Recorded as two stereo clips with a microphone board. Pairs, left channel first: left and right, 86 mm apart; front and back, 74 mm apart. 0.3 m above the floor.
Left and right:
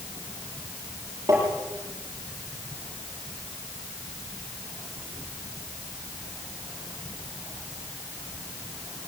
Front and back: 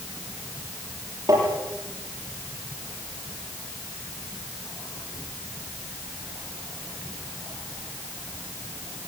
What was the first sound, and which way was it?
Tapping, 140° right.